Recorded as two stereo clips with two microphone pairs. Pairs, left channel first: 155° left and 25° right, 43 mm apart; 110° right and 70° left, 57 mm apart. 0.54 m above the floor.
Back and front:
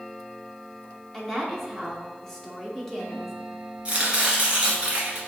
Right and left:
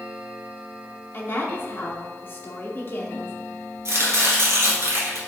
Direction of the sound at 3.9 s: 40° left.